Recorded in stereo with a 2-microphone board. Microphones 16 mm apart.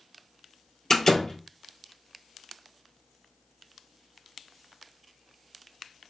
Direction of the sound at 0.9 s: 25° left (ahead or behind).